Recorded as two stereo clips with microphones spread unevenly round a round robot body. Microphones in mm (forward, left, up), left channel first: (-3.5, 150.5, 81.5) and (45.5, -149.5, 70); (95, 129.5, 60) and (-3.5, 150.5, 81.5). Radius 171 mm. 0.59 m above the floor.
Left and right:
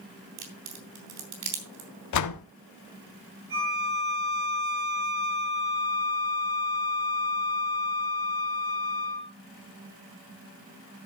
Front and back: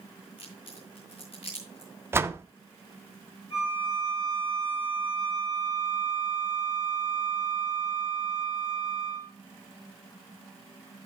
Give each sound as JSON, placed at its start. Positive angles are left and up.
{"t": 0.4, "sound": "a crack", "azimuth_deg": -110, "distance_m": 3.0}
{"t": 2.1, "sound": "a door slam", "azimuth_deg": 95, "distance_m": 1.1}
{"t": 3.5, "sound": "a violin", "azimuth_deg": -75, "distance_m": 7.5}